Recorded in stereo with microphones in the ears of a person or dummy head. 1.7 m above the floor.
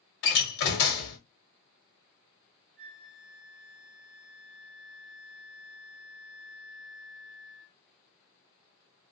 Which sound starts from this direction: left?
A door slam, at 0.2 s.